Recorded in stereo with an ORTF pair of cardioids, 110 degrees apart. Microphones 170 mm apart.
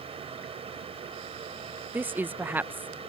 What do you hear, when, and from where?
0.0 s a fan: 35° right
1.9 s a woman speaking: 10° right